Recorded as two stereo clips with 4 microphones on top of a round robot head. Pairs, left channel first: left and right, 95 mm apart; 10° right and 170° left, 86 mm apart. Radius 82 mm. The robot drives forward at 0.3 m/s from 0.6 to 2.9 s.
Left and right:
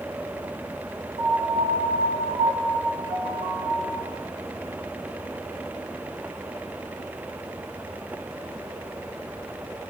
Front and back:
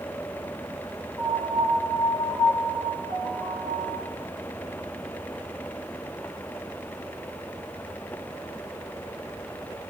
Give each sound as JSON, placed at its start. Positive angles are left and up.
{"t": 1.2, "sound": "a piano", "azimuth_deg": -90, "distance_m": 2.5}